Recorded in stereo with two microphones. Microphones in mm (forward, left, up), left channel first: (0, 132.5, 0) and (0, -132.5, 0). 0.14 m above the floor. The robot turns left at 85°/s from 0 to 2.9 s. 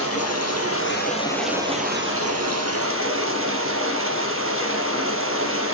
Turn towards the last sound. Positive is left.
turn(degrees=-125)